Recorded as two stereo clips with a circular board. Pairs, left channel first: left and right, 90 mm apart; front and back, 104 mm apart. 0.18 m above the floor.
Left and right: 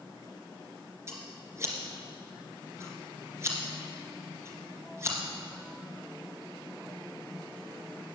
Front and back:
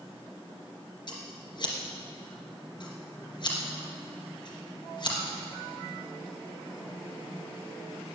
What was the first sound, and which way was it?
Scissors, 35° right.